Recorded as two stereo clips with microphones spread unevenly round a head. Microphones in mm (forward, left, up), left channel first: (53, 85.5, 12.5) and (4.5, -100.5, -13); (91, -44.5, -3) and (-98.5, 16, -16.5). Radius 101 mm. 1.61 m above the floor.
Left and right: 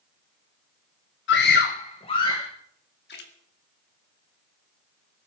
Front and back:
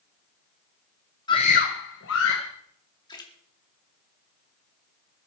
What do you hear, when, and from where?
1.3 s a scream: 50° left, 0.9 m; by 2.5 s 5° left, 2 m
3.1 s a splash: 50° left, 2 m